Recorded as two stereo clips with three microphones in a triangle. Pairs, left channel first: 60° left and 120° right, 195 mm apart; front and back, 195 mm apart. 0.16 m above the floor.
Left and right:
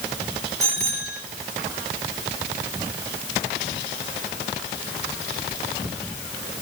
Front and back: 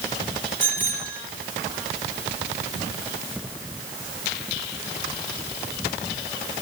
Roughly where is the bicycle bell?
Ahead.